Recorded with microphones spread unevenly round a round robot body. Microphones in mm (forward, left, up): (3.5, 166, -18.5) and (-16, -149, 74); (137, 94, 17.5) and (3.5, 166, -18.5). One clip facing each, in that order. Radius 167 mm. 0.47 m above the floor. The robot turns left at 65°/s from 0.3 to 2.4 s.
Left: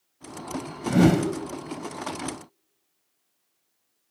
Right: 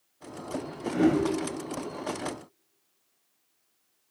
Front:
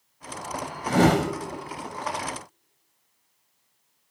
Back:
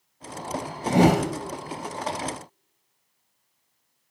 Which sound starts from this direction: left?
A whoosh, at 0.9 s.